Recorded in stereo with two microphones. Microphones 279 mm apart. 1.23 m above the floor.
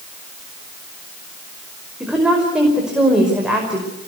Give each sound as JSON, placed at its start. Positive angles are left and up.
{"t": 2.0, "sound": "a woman speaking", "side_deg": -5, "distance_m": 5.5}